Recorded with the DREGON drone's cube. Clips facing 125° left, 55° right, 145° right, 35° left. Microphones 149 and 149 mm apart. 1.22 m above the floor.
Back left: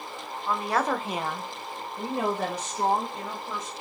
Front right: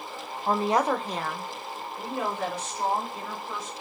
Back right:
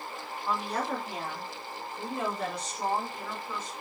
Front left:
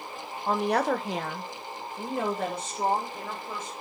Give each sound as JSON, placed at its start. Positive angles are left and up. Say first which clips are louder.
{"t": 0.5, "sound": "a woman speaking", "louder": "front right 3 dB, front left 7 dB", "azimuth_deg": -10, "distance_m": 0.5}